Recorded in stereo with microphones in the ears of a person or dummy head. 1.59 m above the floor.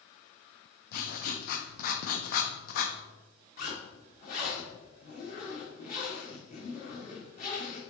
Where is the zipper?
40° left (ahead or behind), 1.4 m.